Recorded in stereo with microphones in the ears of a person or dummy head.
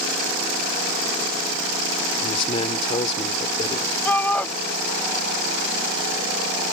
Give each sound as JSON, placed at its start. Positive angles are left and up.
{"t": 2.2, "sound": "a man speaking", "side_deg": 35}
{"t": 4.0, "sound": "a shout", "side_deg": 10}